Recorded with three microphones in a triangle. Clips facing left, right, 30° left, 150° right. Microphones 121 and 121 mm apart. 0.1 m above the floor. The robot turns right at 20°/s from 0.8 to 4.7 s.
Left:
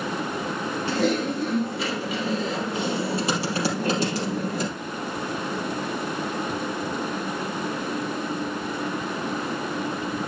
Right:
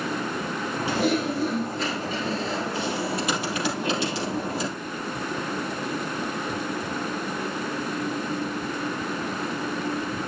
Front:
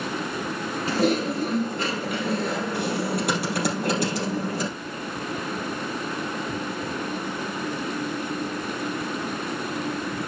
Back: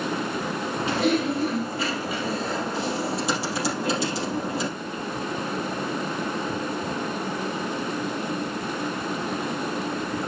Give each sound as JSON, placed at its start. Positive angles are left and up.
{"t": 0.9, "sound": "typing on a keyboard", "azimuth_deg": -15, "distance_m": 3.5}